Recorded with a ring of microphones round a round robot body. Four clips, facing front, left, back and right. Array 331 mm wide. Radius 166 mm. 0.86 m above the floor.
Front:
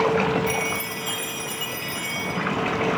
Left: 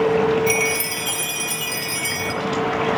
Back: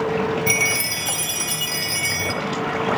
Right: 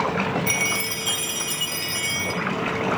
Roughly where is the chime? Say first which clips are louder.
Left 6 dB, back 2 dB; behind.